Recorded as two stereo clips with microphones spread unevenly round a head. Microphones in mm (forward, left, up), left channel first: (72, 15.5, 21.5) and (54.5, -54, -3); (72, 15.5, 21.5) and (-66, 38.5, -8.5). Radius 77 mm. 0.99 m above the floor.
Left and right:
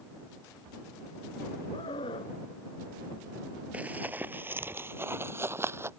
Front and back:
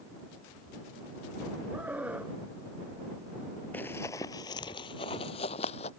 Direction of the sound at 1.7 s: 90° left.